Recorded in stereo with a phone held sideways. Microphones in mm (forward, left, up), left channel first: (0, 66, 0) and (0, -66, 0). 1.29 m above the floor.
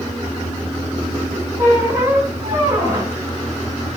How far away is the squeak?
About 3.5 m.